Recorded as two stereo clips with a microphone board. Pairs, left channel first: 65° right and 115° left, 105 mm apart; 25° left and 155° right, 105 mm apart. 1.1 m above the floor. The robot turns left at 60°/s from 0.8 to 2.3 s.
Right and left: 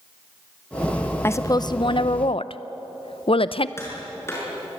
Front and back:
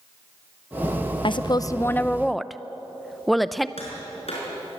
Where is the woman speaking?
5° right, 0.7 m; by 3.7 s 70° right, 0.7 m.